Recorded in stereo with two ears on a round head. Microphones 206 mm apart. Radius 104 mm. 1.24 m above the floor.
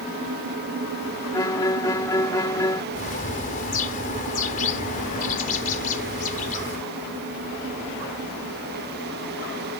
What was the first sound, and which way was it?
A violin, 15° left (ahead or behind).